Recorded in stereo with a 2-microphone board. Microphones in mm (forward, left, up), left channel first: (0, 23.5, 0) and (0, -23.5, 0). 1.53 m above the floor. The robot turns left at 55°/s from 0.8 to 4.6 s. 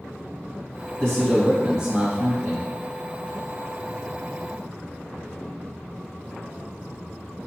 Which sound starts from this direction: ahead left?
A man speaking, at 1.0 s.